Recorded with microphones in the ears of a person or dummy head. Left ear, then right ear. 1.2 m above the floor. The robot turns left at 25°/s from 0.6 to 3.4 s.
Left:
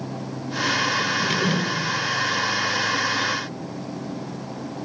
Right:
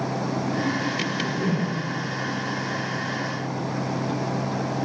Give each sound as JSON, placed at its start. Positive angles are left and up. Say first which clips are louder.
{"t": 1.0, "sound": "a whoosh", "louder": "left 5 dB", "side_deg": 40, "distance_m": 7.0}